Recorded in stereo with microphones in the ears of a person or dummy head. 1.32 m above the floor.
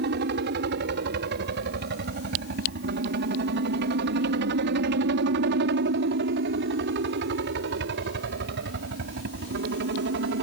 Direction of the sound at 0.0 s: 60° right (ahead or behind).